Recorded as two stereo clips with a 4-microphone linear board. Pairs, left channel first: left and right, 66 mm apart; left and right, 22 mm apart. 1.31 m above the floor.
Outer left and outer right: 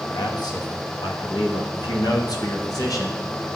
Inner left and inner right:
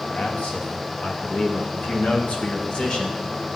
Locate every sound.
0.1 s a man speaking: 75° left (ahead or behind), 2.5 m; by 3.2 s 55° left (ahead or behind), 2.5 m